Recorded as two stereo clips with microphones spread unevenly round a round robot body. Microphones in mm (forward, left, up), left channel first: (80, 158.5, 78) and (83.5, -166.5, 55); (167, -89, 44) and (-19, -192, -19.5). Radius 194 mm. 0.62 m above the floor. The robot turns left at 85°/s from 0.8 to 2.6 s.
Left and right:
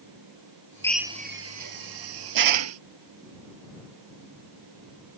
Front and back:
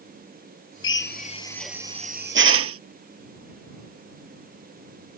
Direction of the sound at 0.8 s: 10° left.